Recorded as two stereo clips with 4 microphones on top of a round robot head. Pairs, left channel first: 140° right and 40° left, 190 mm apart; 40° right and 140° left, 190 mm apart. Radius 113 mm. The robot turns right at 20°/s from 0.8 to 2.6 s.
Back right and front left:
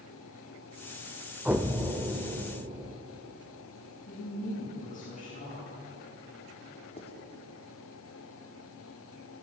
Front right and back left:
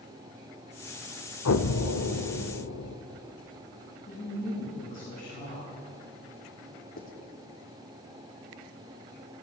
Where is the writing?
80° right, 3 m.